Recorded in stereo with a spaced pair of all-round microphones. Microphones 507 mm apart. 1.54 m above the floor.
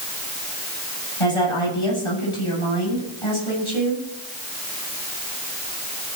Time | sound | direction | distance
1.2 | a woman speaking | 75° left (ahead or behind) | 9 m